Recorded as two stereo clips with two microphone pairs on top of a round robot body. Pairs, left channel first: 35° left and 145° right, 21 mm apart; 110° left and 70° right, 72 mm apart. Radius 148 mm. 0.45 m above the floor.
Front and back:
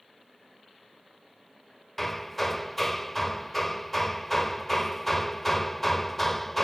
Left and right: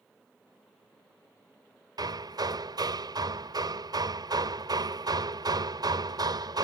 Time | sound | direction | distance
2.0 | hammering | 45° right | ?